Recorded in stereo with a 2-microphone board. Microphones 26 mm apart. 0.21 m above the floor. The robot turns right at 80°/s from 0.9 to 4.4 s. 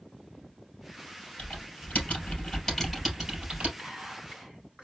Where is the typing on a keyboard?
65° left (ahead or behind), 3 m; by 3.7 s 65° right (ahead or behind), 3 m.